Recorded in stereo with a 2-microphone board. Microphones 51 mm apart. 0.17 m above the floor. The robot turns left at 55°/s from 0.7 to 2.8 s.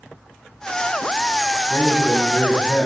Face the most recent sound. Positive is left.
turn(degrees=160)